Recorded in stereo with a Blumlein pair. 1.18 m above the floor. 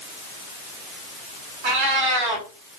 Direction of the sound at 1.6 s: 40° right.